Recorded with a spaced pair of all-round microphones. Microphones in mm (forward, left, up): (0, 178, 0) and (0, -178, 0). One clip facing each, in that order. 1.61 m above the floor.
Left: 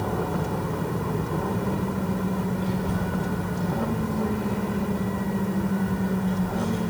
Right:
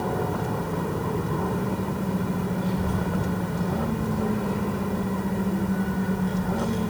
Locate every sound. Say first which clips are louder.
2.6 s a child speaking: even; 60° right (ahead or behind), 6 m; by 6.8 s 80° right, 5.5 m